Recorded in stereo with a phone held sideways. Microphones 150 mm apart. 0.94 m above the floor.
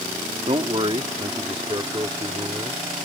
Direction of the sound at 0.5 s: 40° right (ahead or behind).